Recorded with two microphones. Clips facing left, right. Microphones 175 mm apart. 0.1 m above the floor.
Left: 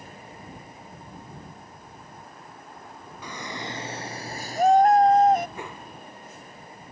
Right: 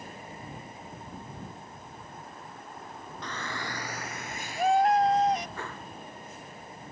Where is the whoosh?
15° left (ahead or behind).